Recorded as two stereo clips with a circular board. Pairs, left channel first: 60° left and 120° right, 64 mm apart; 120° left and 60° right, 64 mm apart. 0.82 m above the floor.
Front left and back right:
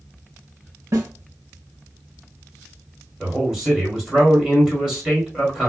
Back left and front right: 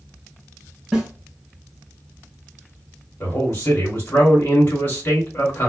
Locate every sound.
0.9 s a snare drum: 145° right, 1.6 m
3.2 s a man speaking: 170° left, 1.9 m